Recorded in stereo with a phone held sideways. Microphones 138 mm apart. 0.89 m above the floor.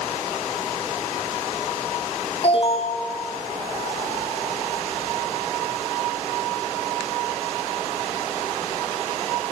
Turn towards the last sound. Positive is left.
turn(degrees=45)  # may be behind; listen again after turning